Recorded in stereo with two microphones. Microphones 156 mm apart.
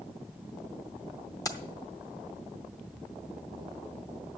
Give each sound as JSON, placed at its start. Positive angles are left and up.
{"t": 1.4, "sound": "keys jangling", "side_deg": 20, "distance_m": 0.8}